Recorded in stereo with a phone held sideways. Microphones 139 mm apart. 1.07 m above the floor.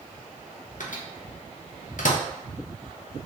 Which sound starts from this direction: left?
A microwave, at 0.8 s.